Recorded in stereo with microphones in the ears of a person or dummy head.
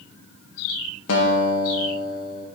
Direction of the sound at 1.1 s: 75° left (ahead or behind).